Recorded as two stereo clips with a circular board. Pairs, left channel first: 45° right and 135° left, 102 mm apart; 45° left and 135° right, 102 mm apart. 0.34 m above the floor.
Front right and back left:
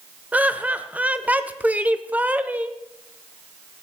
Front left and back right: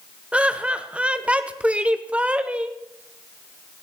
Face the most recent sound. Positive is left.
turn(degrees=170)